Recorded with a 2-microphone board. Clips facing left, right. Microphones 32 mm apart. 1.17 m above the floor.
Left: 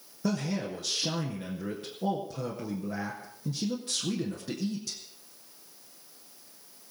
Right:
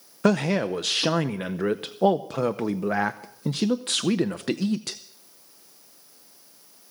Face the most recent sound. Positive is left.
turn(degrees=-65)  # may be behind; listen again after turning